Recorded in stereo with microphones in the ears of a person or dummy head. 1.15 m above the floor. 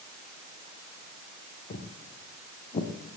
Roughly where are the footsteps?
Left.